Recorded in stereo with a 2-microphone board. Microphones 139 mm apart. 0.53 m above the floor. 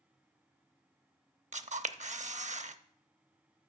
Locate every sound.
1.5 s a camera shutter: 60° right (ahead or behind), 0.5 m